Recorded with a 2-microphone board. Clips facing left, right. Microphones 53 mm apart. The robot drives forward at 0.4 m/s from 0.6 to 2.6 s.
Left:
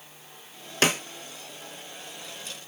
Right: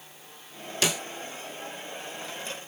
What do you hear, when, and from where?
0.8 s a snare drum: 45° left (ahead or behind), 0.5 m